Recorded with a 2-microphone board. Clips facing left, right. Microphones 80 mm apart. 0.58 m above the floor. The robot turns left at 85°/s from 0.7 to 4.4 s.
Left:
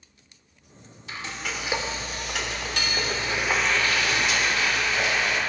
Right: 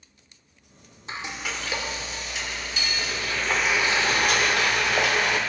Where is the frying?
145° right, 0.9 m; by 5.4 s 70° right, 0.9 m.